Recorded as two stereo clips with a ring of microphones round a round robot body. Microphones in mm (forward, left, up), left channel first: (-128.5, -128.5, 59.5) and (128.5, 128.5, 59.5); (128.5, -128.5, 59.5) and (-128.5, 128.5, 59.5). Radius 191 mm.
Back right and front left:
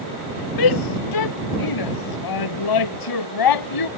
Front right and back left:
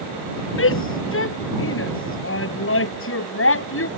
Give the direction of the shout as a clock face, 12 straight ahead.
3 o'clock.